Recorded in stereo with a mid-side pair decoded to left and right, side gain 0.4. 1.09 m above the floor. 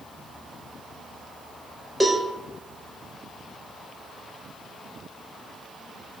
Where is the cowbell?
5° right, 0.8 m.